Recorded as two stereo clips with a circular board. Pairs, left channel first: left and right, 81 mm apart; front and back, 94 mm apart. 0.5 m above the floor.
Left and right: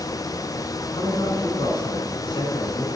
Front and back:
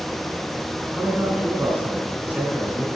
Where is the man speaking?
110° left, 5.5 m.